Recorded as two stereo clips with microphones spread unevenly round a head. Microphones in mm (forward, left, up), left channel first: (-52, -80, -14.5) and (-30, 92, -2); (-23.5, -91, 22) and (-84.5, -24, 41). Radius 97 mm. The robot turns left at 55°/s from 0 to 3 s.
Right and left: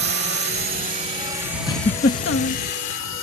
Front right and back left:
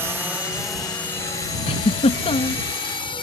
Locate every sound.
0.0 s a drone: 60° left; by 3.2 s 70° right
1.7 s a giggle: 25° right; by 2.6 s 80° right